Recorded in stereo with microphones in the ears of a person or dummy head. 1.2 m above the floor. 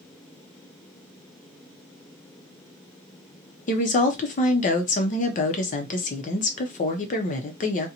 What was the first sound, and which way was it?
A woman speaking, 35° left (ahead or behind).